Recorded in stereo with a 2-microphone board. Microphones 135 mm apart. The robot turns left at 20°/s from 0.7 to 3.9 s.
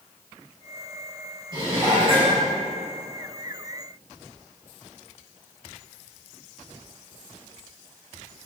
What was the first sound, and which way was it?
Dishes clattering, 35° right (ahead or behind).